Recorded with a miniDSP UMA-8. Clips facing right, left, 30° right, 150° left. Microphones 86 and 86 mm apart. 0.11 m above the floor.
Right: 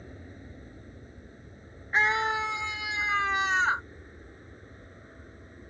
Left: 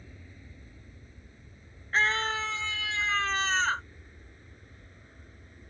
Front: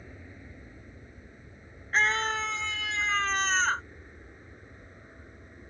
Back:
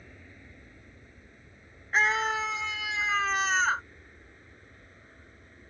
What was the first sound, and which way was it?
An aircraft, 100° right.